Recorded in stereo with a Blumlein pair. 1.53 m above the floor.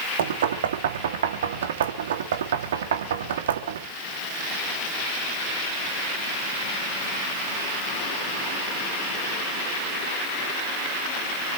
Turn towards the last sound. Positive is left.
turn(degrees=-60)